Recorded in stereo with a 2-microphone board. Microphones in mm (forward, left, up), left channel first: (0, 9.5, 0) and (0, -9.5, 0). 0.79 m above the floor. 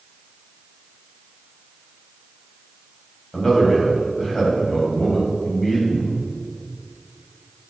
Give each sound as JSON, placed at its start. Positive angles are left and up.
{"t": 3.3, "sound": "a man speaking", "side_deg": 25, "distance_m": 3.5}
{"t": 5.9, "sound": "a cupboard door", "side_deg": 70, "distance_m": 2.5}